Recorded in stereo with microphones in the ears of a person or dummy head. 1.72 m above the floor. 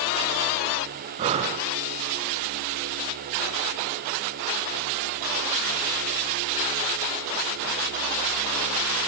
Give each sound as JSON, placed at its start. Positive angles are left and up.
{"t": 1.2, "sound": "breathing", "side_deg": -35, "distance_m": 0.6}